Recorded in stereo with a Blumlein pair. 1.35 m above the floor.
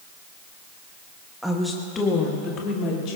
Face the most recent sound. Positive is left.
turn(degrees=40)